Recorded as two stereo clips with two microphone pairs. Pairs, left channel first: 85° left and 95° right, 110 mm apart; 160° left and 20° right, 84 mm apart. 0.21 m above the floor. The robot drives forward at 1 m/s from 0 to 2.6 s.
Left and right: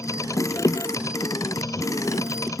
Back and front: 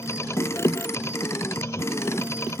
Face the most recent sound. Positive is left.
No sound to turn to.